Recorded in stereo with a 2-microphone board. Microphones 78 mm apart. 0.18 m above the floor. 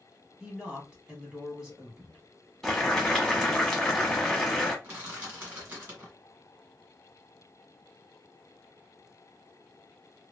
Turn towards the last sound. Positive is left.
turn(degrees=-25)  # may be behind; listen again after turning